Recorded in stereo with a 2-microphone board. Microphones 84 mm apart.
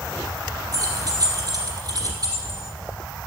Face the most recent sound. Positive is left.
turn(degrees=-50)  # may be behind; listen again after turning